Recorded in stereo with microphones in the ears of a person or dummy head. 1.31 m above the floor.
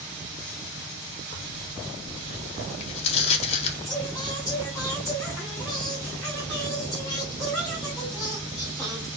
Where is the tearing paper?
35° left (ahead or behind), 0.8 m.